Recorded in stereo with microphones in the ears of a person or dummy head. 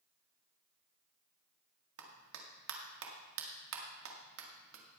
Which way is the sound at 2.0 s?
85° right.